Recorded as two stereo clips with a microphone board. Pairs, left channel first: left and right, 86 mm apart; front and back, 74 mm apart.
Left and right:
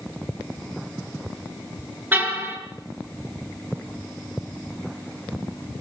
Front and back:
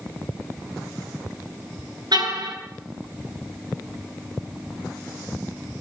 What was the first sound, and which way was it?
A car horn, 160° right.